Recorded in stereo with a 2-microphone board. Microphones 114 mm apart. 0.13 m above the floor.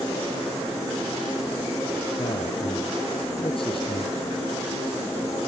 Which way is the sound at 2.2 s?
50° left (ahead or behind).